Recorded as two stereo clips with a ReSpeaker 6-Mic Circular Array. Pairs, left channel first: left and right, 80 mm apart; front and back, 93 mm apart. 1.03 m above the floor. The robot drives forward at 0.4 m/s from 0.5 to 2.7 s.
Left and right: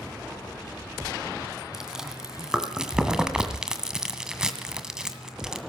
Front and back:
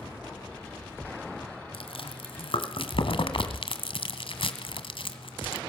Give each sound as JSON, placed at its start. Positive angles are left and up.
{"t": 1.7, "sound": "chewing", "azimuth_deg": -5, "distance_m": 2.5}